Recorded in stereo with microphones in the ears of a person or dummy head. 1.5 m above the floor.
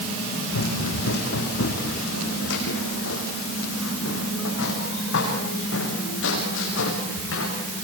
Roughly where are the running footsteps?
Left.